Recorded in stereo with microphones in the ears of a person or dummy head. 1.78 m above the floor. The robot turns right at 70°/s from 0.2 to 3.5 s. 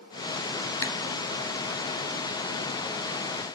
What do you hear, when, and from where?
0.8 s a camera shutter: 15° left (ahead or behind), 1.0 m; by 0.9 s 25° left (ahead or behind), 1.0 m